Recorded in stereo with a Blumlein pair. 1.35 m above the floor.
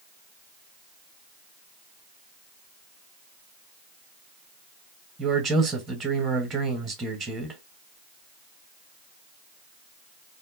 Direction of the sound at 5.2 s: 10° right.